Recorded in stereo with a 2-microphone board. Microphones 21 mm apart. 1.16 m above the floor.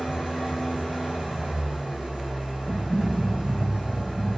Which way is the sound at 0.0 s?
30° right (ahead or behind).